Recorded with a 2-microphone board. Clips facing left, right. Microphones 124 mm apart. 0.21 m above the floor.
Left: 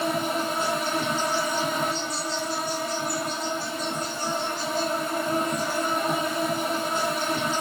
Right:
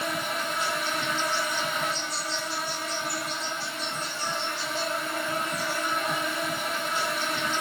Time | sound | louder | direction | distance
0.0 | an insect | left 5 dB | 40° left (ahead or behind) | 1.2 m